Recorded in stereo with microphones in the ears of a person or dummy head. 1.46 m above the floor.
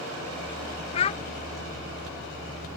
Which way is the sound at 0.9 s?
35° left (ahead or behind).